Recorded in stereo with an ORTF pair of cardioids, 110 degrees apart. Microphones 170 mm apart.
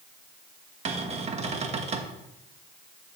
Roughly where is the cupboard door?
Ahead right.